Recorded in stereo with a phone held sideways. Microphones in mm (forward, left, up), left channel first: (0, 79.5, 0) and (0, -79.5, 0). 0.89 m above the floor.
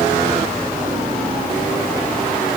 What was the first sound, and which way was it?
Only background noise.